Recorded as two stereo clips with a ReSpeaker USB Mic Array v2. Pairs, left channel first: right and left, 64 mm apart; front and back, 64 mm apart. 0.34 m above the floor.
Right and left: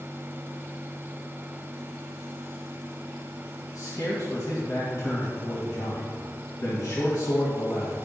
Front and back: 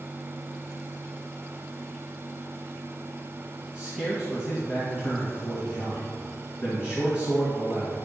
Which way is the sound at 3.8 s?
110° right.